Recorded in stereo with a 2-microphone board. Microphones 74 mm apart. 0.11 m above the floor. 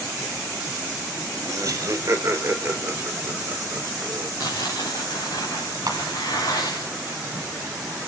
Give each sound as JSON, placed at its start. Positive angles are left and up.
{"t": 1.4, "sound": "laughter", "side_deg": -45, "distance_m": 3.0}
{"t": 4.4, "sound": "tearing paper", "side_deg": 55, "distance_m": 8.5}
{"t": 5.9, "sound": "a clap", "side_deg": -55, "distance_m": 2.5}